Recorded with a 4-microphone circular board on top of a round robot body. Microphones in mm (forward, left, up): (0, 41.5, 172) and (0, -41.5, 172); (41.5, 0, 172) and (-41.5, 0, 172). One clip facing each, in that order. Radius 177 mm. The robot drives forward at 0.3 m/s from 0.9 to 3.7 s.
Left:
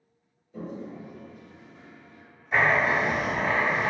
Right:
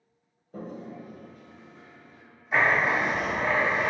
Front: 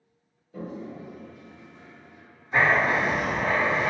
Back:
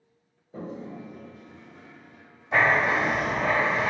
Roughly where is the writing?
Behind.